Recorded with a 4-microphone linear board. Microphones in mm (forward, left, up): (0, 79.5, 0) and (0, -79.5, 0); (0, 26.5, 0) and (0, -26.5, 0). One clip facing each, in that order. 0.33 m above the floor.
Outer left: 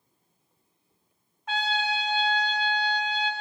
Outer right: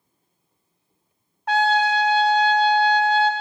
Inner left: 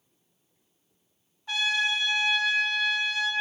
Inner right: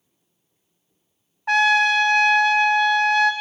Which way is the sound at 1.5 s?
75° right (ahead or behind).